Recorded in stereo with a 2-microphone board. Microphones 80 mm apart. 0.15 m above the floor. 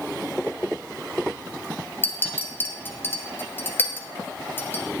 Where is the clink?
25° left (ahead or behind), 1.5 m.